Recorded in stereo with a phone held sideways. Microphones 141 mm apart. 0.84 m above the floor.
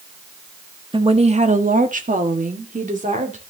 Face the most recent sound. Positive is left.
turn(degrees=-60)  # may be behind; listen again after turning